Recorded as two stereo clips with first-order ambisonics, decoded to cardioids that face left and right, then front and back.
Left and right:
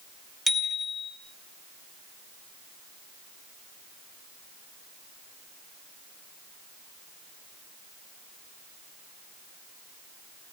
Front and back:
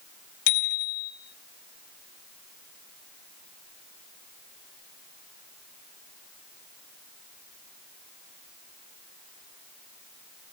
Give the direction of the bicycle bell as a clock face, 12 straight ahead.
12 o'clock.